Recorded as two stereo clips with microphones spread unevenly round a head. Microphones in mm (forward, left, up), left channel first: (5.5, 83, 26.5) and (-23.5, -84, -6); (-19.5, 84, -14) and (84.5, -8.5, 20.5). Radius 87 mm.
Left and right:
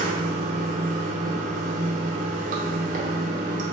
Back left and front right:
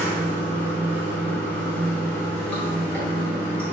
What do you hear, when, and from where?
0.0 s running water: 145° right, 0.7 m